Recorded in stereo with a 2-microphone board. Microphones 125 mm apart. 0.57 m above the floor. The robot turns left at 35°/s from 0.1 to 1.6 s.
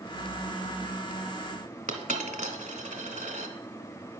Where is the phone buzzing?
I don't hear a phone buzzing.